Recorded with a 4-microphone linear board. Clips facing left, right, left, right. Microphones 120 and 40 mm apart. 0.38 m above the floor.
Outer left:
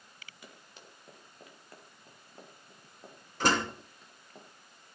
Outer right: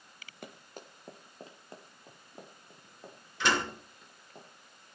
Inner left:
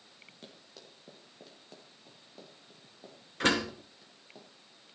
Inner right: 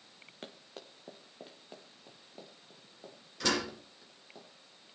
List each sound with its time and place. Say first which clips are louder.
0.4 s running footsteps: outer right 8 dB, inner right 6 dB; 50° right (ahead or behind), 3 m; by 4.4 s centre (ahead or behind), 7 m
3.4 s a door slam: outer left 2 dB, inner left 4 dB; 45° left (ahead or behind), 5 m